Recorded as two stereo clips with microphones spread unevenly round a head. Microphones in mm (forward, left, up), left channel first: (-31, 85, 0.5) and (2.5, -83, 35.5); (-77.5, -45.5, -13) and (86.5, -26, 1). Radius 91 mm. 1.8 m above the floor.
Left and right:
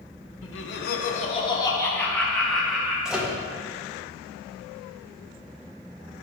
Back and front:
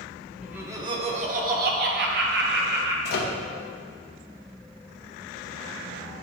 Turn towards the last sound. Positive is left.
turn(degrees=-160)